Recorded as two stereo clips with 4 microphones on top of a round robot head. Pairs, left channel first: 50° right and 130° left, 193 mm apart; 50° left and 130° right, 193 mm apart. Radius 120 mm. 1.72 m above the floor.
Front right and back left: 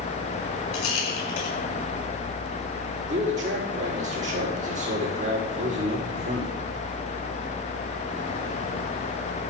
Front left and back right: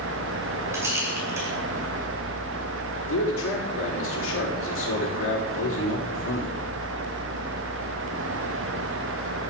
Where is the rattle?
50° right, 6 m.